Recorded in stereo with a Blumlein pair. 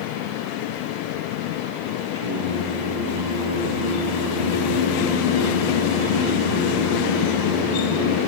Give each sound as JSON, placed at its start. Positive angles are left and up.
{"t": 2.1, "sound": "singing", "azimuth_deg": 60, "distance_m": 0.9}